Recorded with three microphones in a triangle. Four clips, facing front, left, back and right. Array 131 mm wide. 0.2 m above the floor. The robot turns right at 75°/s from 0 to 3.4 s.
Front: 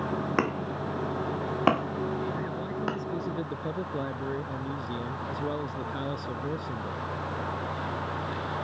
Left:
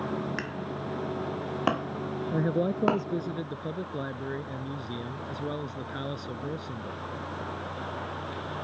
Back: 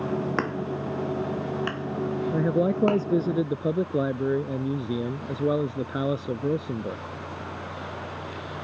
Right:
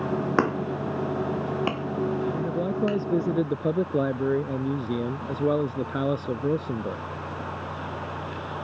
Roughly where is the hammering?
Right.